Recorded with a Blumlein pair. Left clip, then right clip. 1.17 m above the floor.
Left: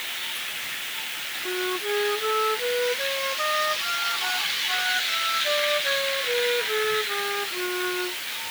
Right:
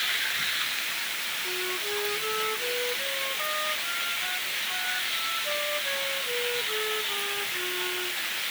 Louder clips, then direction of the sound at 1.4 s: Left 3 dB; 25° left.